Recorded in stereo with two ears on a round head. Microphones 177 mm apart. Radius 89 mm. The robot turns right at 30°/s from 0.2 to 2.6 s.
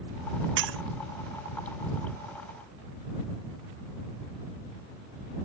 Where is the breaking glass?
70° right (ahead or behind); by 0.8 s 75° right (ahead or behind).